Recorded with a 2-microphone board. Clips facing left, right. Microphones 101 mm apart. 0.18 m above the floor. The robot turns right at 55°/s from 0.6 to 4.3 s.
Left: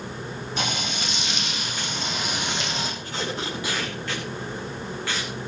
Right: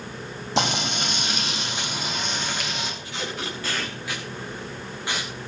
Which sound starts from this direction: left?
Tape being pulled, at 3.0 s.